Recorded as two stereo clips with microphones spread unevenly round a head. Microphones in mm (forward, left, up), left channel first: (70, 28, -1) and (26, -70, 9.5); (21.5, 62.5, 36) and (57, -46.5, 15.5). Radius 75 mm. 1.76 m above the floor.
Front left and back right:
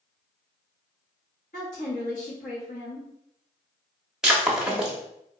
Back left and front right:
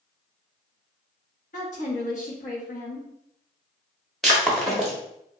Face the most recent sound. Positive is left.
turn(degrees=175)